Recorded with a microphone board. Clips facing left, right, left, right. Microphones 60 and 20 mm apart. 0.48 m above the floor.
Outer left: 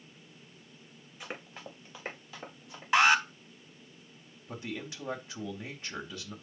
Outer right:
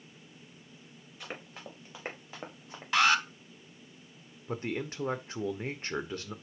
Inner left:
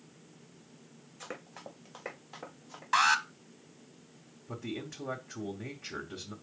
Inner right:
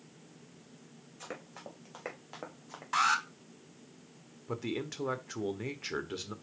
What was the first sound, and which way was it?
Running footsteps, 5° left (ahead or behind).